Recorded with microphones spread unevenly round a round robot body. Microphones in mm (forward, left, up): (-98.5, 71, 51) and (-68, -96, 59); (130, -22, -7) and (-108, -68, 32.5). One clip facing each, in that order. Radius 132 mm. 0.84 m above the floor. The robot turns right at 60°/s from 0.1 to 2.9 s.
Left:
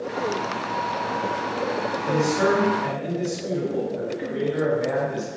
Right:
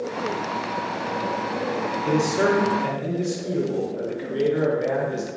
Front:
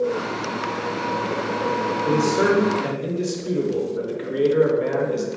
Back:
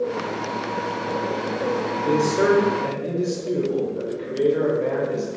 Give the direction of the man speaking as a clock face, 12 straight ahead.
3 o'clock.